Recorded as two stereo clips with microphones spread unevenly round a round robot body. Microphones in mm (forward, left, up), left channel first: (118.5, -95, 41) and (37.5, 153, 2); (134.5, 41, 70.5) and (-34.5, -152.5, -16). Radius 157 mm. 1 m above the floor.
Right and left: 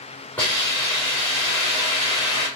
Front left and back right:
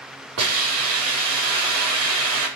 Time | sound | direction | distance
0.4 | a hiss | 160° right | 5.5 m